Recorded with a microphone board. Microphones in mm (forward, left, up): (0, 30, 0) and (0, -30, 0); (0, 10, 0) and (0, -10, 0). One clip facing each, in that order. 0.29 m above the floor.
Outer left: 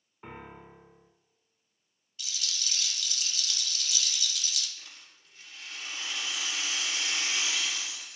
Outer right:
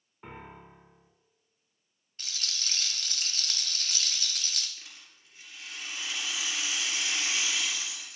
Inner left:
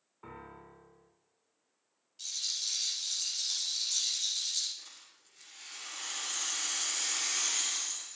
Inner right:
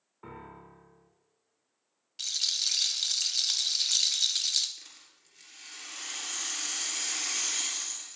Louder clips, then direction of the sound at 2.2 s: Even, inner right 6 dB; 45° right (ahead or behind).